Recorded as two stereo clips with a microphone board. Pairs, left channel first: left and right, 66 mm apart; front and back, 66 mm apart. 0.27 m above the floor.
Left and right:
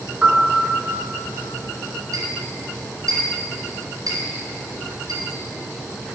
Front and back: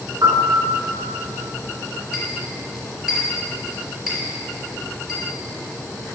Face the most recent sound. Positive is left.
turn(degrees=-95)